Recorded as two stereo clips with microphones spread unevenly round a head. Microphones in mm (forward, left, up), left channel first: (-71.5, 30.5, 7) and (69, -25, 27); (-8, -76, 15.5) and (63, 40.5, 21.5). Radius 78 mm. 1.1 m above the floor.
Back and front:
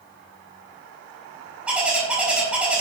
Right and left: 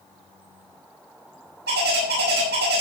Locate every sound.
1.7 s a bird: 60° left, 6 m